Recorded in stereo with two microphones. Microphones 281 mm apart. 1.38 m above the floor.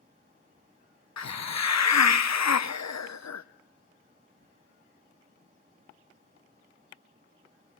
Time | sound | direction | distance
1.2 | a hiss | 75° left (ahead or behind) | 0.7 m